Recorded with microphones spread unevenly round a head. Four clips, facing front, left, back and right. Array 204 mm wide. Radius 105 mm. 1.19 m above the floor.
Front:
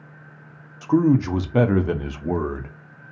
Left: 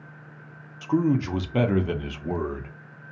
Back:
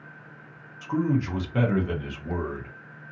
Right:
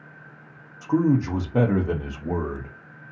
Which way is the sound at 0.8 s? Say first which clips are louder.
Right 2 dB, front 8 dB; 10° right.